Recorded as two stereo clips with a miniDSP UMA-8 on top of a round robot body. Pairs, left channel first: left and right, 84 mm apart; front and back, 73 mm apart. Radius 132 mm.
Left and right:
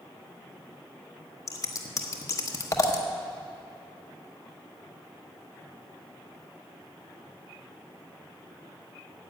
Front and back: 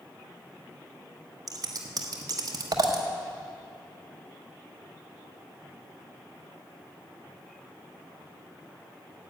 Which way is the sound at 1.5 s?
140° left.